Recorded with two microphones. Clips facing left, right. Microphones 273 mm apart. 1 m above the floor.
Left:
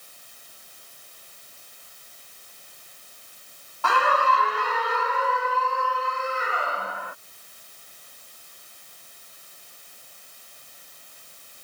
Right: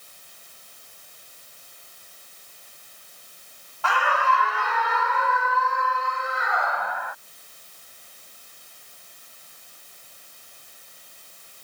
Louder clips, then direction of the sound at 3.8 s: Left 2 dB; 45° left (ahead or behind).